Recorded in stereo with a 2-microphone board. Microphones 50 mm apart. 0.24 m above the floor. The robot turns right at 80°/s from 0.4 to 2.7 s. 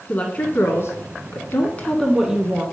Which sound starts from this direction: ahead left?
A woman speaking, at 0.1 s.